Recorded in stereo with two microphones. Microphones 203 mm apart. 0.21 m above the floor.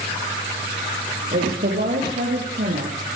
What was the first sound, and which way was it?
A woman speaking, 50° right (ahead or behind).